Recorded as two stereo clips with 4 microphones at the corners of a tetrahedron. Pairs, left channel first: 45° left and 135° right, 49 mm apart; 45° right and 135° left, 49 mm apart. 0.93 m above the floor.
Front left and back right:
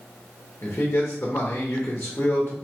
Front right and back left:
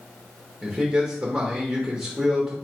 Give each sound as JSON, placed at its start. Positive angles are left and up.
{"t": 0.6, "sound": "a man speaking", "azimuth_deg": 75, "distance_m": 1.2}